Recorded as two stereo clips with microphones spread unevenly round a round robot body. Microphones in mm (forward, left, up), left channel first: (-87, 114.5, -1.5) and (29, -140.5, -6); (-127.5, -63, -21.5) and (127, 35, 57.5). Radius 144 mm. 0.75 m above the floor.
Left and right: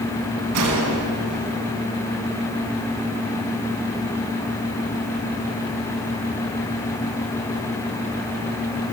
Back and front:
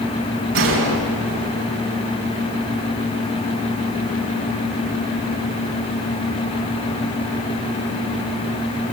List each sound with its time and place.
0.5 s a gunshot: 25° right, 4 m